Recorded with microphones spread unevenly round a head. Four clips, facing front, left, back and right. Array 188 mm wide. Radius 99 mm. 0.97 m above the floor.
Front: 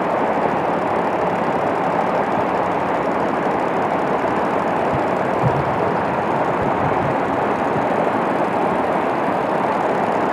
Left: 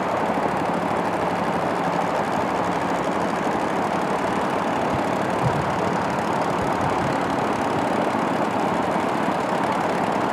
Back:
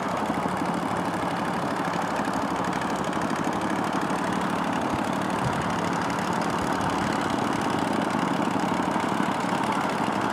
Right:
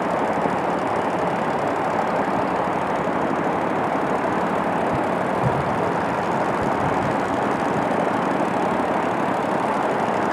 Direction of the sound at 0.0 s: 10° right.